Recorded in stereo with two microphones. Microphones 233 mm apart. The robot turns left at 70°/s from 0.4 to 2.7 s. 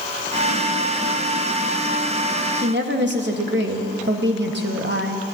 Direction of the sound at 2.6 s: 45° right (ahead or behind).